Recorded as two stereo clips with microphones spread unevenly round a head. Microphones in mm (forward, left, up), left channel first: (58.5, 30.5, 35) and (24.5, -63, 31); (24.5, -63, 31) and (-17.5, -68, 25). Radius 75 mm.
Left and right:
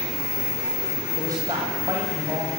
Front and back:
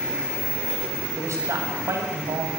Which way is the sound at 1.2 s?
175° right.